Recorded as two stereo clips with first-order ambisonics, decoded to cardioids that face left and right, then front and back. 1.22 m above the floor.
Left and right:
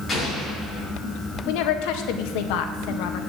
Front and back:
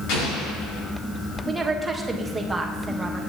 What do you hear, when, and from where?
0.1 s an explosion: 20° left, 5.5 m
1.5 s a woman speaking: 95° left, 1.5 m